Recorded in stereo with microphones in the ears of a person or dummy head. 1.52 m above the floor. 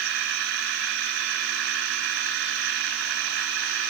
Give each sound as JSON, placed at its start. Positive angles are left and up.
{"t": 0.0, "sound": "a machine running", "side_deg": -70}